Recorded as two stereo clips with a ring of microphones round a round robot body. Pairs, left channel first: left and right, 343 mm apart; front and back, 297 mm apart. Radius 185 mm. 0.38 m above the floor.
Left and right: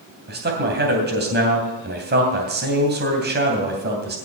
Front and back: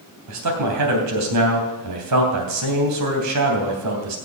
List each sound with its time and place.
0.3 s a man speaking: 150° right, 3 m